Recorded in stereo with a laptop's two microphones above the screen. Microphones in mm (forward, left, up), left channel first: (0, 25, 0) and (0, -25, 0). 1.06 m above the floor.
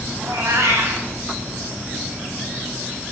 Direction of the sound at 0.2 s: 65° right (ahead or behind).